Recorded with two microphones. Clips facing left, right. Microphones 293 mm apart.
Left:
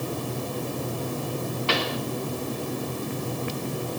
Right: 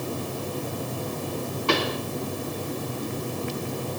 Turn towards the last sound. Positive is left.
turn(degrees=-55)  # may be behind; listen again after turning